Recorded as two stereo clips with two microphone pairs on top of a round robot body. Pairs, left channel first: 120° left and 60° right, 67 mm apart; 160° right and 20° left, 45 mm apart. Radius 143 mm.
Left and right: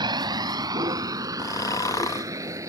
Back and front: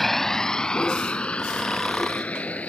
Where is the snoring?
115° left.